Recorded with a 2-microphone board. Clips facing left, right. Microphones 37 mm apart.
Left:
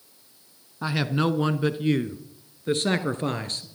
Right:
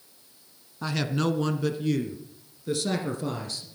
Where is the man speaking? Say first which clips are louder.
Left 2 dB; 15° left (ahead or behind), 1.2 m; by 3.7 s 50° left (ahead or behind), 2 m.